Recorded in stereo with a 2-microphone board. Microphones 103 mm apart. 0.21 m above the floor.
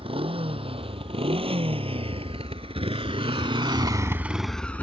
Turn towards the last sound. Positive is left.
turn(degrees=15)  # may be behind; listen again after turning